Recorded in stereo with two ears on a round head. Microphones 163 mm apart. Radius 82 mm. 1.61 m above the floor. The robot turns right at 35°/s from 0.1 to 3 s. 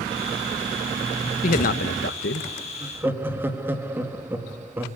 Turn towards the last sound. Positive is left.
turn(degrees=-10)  # may be behind; listen again after turning